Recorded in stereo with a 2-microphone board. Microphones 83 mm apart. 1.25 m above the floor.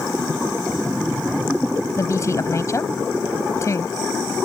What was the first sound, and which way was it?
A woman speaking, 40° left (ahead or behind).